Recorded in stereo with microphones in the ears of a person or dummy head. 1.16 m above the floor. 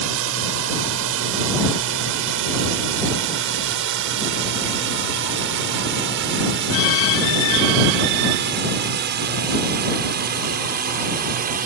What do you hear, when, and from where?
0.0 s a drone: 60° right (ahead or behind); by 11.7 s 40° right (ahead or behind)